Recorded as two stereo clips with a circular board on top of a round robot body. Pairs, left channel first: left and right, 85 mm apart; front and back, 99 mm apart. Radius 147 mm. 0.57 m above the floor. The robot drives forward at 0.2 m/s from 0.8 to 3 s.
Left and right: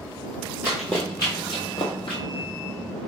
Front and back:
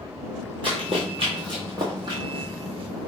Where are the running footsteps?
155° right, 0.6 m; by 2.2 s 125° left, 1.0 m.